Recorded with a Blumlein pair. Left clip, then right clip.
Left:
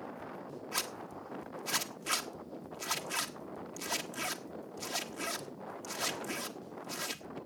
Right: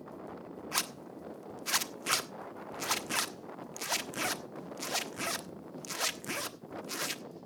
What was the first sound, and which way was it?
A zipper, 15° right.